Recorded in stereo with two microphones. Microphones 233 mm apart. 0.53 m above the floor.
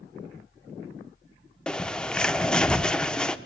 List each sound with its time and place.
1.7 s a bird: 5° left (ahead or behind), 0.6 m